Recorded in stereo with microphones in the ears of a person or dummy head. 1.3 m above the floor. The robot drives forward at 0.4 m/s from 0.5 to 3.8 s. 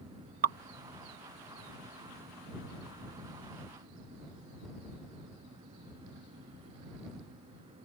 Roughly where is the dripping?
Right.